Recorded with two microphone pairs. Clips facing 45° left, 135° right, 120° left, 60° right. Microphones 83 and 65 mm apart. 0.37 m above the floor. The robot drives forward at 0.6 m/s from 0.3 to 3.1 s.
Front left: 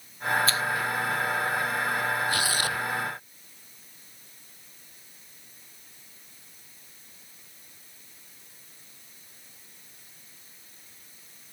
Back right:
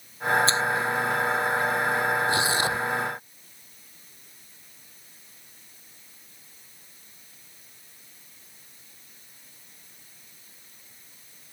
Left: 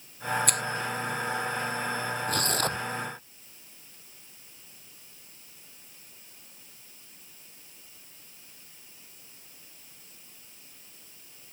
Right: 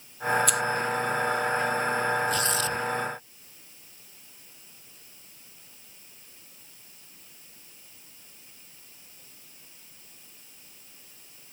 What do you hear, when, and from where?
0.5 s a finger snap: 165° left
2.3 s tearing paper: 160° left